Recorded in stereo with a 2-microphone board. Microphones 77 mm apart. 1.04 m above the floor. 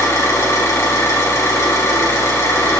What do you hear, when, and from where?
0.0 s an engine running: 40° left (ahead or behind), 2.5 m